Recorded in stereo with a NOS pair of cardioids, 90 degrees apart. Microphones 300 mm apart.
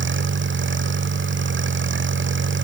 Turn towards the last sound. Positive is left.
turn(degrees=-40)